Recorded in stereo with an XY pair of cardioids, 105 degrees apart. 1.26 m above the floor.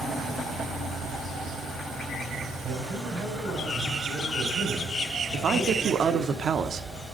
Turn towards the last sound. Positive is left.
turn(degrees=-50)